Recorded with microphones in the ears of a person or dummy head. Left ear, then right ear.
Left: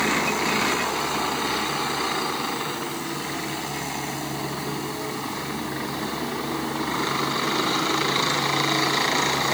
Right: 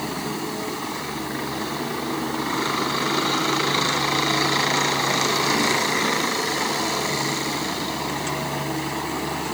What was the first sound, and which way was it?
Only background noise.